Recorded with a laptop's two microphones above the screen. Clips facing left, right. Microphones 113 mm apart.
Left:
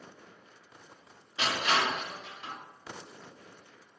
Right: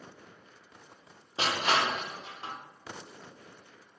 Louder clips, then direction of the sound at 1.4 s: Right 1 dB; 35° right (ahead or behind).